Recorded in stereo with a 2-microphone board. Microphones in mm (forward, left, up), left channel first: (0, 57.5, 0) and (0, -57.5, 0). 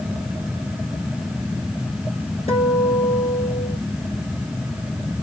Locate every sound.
2.5 s a guitar: 65° left (ahead or behind), 1.6 m